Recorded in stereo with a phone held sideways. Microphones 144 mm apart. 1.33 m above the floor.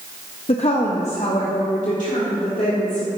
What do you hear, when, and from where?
0.5 s a woman speaking: 45° left (ahead or behind), 0.5 m; by 3.1 s 65° left (ahead or behind), 2 m